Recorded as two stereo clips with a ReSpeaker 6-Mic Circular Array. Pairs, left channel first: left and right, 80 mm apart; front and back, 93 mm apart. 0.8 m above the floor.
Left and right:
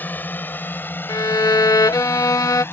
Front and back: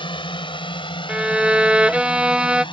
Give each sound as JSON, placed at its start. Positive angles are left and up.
{"t": 0.0, "sound": "a drone", "azimuth_deg": 25}
{"t": 1.1, "sound": "a violin", "azimuth_deg": 105}